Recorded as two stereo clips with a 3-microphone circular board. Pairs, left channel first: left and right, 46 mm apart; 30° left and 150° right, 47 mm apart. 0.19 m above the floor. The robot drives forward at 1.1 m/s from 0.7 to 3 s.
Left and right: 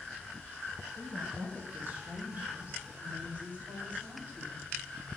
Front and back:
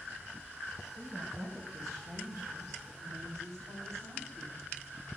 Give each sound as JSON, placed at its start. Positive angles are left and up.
{"t": 1.0, "sound": "a woman speaking", "azimuth_deg": -125, "distance_m": 4.5}